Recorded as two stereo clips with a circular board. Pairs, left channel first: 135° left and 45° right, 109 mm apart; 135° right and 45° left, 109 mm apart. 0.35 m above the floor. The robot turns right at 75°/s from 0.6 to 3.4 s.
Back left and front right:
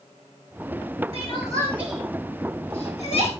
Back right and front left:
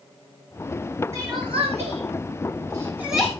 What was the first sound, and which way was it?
Crying, 20° right.